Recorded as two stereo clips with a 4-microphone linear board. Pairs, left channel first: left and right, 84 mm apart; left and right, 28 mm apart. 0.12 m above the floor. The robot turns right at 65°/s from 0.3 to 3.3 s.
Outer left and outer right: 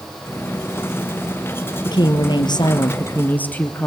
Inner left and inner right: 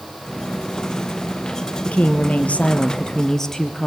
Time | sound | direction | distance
1.9 | a woman speaking | 65° left | 2.5 m